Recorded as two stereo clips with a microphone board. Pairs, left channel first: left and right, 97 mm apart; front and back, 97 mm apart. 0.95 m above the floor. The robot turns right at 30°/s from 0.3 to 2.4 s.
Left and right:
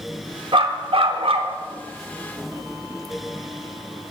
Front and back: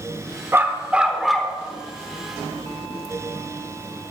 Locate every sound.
0.5 s a dog barking: 115° right, 1.0 m; by 1.6 s 85° right, 1.0 m